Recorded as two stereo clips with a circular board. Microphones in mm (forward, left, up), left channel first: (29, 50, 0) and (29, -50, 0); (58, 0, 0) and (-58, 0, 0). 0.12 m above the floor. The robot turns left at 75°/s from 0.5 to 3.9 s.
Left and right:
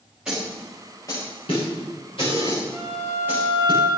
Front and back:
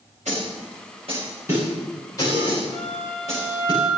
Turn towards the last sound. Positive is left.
turn(degrees=-65)